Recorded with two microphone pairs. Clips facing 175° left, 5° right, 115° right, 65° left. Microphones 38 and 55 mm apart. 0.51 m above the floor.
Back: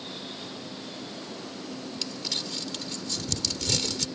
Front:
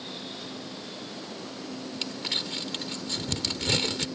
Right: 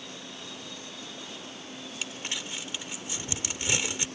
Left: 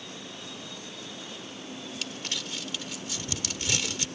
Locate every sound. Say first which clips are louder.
2.0 s crumpling: front 3 dB, right 1 dB; 50° right